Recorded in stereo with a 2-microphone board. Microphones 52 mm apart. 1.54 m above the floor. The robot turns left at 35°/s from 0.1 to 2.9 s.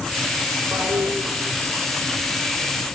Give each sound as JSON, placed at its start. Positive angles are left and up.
{"t": 0.7, "sound": "a toilet flushing", "side_deg": -60, "distance_m": 5.0}